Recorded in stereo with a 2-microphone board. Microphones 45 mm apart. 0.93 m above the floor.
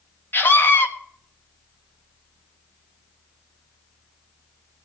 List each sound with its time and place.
0.3 s a scream: 50° left (ahead or behind), 1.4 m